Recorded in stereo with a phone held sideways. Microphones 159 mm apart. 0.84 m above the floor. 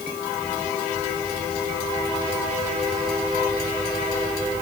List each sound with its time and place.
Only background noise.